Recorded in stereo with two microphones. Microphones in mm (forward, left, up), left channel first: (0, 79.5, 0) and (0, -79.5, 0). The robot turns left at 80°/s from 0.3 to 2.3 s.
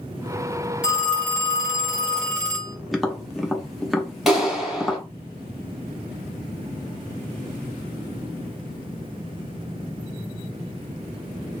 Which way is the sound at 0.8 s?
5° right.